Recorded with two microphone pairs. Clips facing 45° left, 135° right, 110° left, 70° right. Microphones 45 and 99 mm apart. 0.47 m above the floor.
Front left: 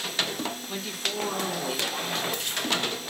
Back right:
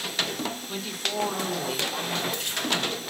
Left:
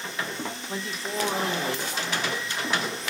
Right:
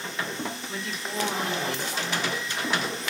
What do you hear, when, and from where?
0.7 s a woman speaking: 135° left, 0.9 m